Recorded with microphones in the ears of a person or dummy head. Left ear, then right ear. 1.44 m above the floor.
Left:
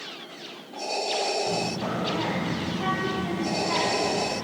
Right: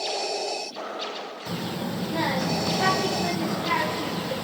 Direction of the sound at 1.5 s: 45° right (ahead or behind).